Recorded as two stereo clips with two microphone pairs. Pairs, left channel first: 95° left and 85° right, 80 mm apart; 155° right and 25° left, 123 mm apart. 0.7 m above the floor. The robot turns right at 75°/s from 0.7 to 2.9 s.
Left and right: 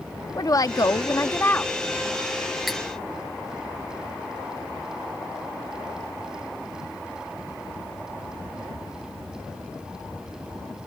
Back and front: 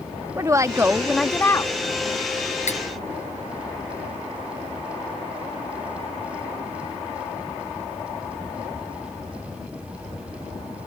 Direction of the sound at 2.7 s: 175° right.